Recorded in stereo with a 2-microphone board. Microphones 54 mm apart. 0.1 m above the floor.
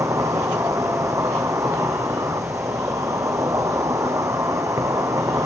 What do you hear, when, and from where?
0.0 s an insect: 80° right, 0.9 m